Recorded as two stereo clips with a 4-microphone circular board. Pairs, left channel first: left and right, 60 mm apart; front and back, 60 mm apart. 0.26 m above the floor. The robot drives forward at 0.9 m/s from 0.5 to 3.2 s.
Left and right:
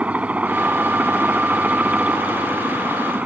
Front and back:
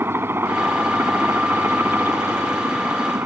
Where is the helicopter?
150° right.